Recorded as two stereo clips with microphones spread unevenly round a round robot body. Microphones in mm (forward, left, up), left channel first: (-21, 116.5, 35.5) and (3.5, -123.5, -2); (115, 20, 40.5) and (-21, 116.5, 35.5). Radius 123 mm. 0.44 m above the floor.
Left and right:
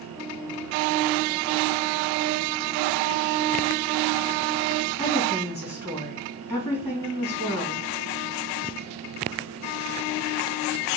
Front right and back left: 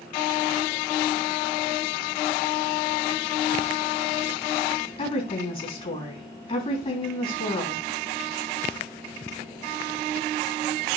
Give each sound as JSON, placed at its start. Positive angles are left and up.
{"t": 5.0, "sound": "a woman speaking", "azimuth_deg": 15, "distance_m": 3.5}